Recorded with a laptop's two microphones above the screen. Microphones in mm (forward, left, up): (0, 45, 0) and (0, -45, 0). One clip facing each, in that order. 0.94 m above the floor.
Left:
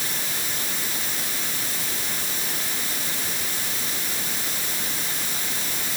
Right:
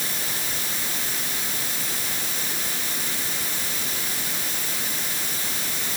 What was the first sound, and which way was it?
Only background noise.